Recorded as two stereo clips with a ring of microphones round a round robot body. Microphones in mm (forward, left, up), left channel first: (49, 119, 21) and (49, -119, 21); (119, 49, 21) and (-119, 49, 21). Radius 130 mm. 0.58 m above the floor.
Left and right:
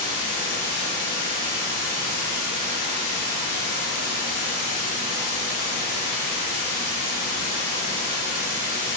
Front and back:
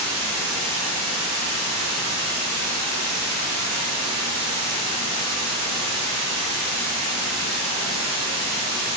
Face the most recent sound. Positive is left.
turn(degrees=-155)